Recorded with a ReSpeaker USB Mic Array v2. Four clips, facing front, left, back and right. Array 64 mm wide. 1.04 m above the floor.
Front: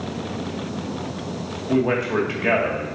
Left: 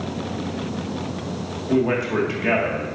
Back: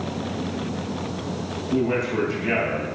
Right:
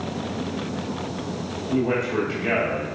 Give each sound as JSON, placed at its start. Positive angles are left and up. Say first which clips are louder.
{"t": 1.7, "sound": "a man speaking", "louder": "left 3 dB, front 3 dB", "azimuth_deg": 30, "distance_m": 1.9}